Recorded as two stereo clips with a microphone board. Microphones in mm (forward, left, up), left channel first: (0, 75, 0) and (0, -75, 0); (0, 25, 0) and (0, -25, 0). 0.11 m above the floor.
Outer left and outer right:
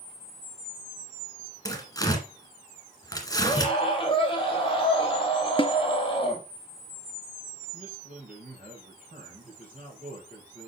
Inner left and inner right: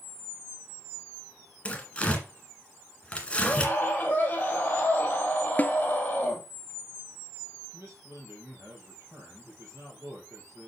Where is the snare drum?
35° left (ahead or behind), 0.5 m.